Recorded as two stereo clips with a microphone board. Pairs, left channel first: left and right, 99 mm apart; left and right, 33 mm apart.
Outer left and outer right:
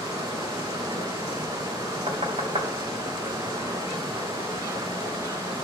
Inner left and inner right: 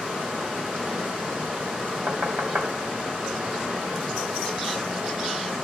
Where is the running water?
35° right (ahead or behind), 4 m.